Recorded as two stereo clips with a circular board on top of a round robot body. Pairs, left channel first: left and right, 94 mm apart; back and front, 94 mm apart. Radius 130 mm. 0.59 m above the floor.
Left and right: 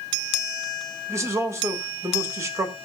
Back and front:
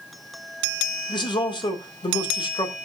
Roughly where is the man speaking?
Behind right.